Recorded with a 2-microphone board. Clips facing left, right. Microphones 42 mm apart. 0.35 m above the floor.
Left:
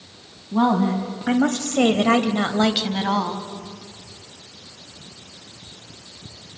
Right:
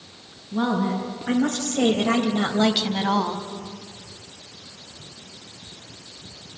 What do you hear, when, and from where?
0.5 s a woman speaking: 45° left (ahead or behind), 2 m; by 3.5 s 10° left (ahead or behind), 2 m